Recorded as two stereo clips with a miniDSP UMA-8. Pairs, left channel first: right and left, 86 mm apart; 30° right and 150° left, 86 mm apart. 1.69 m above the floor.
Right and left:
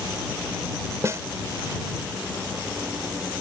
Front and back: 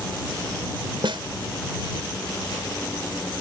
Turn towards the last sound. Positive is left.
turn(degrees=140)